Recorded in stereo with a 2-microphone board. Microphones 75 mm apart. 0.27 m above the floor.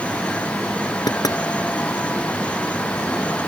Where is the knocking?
60° left (ahead or behind).